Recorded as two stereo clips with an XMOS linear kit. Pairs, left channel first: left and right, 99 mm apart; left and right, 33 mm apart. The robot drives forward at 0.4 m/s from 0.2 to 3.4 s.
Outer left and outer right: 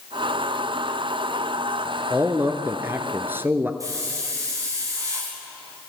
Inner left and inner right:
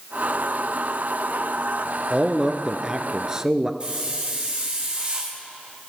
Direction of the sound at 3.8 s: 35° right (ahead or behind).